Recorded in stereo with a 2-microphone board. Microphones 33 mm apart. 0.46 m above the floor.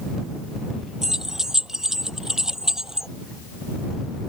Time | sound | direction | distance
1.0 | keys jangling | 15° right (ahead or behind) | ?